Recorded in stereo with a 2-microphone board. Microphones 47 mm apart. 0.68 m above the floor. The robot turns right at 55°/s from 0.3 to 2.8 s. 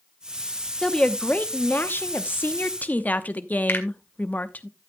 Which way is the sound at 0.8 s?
15° left.